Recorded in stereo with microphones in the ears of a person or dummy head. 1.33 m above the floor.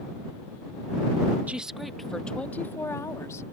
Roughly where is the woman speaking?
Centre.